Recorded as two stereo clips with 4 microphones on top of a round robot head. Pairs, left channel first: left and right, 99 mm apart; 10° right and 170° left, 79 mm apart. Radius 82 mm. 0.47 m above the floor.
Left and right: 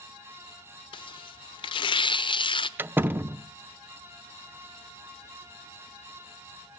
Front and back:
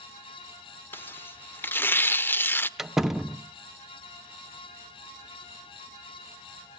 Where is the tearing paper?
55° left, 0.6 m.